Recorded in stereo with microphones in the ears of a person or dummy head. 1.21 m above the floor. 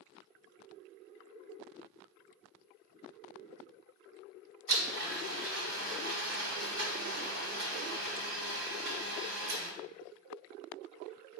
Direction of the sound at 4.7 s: 70° right (ahead or behind).